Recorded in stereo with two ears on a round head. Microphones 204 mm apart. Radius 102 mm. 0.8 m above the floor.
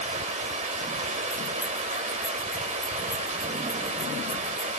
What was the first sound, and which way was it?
Running water, 35° right (ahead or behind).